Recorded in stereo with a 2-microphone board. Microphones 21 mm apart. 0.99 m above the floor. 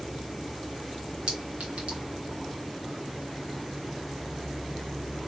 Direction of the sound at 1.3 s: 80° right.